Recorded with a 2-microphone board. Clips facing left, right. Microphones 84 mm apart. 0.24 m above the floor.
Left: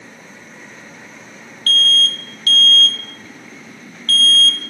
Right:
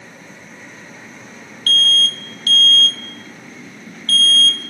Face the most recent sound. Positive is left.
turn(degrees=55)  # may be behind; listen again after turning